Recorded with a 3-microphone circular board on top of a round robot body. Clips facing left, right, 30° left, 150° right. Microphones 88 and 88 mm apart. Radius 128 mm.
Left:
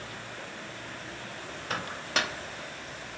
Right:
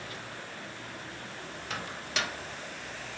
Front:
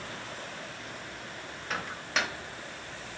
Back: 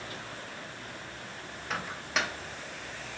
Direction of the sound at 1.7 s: 120° left.